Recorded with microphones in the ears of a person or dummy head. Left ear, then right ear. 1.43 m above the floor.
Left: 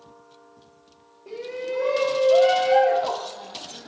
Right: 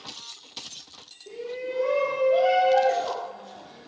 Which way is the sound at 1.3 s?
55° left (ahead or behind).